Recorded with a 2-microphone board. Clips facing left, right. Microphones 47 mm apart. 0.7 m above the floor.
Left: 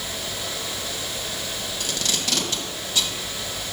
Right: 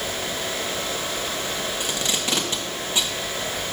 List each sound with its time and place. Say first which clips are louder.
1.8 s tape being pulled: right 2 dB; 25° right (ahead or behind), 1.1 m